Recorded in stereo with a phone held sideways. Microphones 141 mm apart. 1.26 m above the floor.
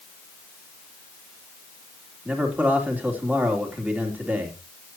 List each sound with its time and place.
2.2 s a man speaking: 10° right (ahead or behind), 3 m